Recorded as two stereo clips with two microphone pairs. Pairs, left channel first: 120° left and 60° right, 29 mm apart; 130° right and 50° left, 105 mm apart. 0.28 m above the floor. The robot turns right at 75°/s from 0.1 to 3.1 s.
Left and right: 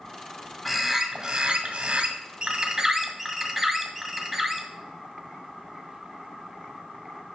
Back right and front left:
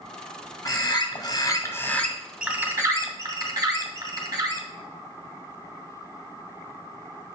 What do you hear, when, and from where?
0.7 s a bird: 160° right, 1.5 m; by 4.7 s 25° left, 1.5 m